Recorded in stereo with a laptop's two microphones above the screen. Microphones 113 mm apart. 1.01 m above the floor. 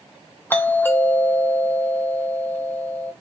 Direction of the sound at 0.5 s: 20° left (ahead or behind).